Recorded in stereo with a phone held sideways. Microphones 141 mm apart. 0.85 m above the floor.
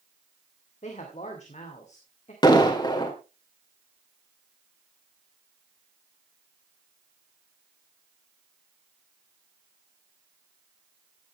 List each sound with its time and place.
0.8 s a woman speaking: 60° left (ahead or behind), 2.5 m
2.4 s an explosion: 30° left (ahead or behind), 2 m